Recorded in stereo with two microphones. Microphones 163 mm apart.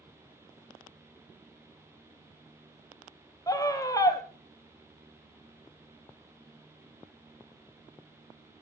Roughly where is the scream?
Left.